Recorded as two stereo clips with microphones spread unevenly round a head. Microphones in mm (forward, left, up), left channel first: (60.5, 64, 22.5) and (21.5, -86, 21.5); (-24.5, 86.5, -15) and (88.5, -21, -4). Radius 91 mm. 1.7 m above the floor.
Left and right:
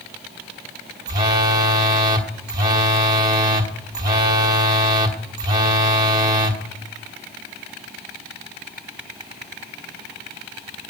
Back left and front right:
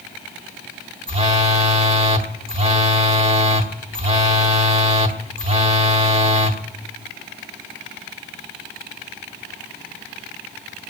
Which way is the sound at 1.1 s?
55° right.